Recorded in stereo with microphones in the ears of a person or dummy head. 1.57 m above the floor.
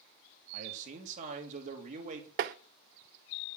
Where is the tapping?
50° right (ahead or behind), 0.7 m.